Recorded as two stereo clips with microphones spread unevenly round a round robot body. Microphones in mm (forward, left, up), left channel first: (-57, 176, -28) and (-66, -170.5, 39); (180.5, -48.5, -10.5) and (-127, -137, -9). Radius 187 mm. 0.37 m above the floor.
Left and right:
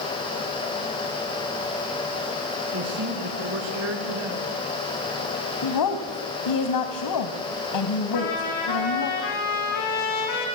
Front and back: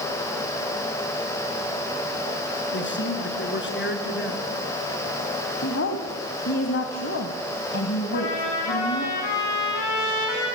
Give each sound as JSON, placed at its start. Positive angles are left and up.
{"t": 2.7, "sound": "a man speaking", "azimuth_deg": -40, "distance_m": 5.0}
{"t": 5.6, "sound": "a woman speaking", "azimuth_deg": 70, "distance_m": 1.8}
{"t": 8.1, "sound": "a trumpet", "azimuth_deg": 50, "distance_m": 7.0}